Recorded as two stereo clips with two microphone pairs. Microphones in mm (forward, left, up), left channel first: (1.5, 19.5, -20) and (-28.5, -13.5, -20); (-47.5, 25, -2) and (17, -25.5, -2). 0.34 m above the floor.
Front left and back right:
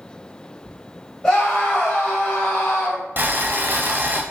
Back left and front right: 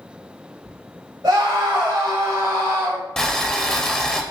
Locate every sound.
1.2 s a scream: 20° right, 1.2 m; by 3.0 s 15° left, 1.7 m
3.2 s boiling: 140° right, 0.6 m